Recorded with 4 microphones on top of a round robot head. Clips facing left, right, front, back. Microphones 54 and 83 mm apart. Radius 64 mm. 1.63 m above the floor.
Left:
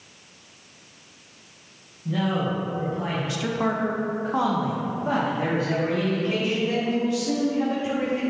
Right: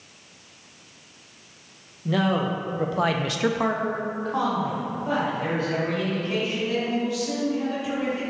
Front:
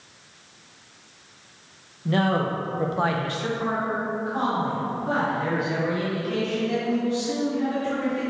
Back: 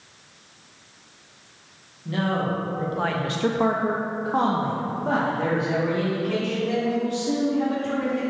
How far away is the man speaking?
About 1.6 m.